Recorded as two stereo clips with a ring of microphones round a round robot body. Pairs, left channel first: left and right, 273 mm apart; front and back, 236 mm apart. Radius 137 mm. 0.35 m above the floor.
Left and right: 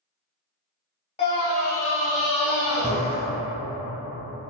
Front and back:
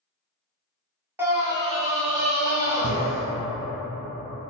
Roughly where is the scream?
Behind left.